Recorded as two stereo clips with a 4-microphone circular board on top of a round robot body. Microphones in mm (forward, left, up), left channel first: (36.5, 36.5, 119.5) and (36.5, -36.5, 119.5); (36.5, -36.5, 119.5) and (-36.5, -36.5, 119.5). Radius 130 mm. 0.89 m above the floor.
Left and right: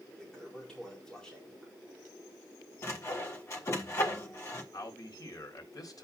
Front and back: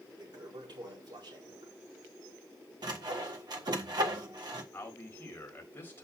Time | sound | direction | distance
0.2 | a toilet flushing | 170° left | 5 m
2.8 | sawing | 145° left | 1.4 m
4.7 | a man speaking | 60° left | 4 m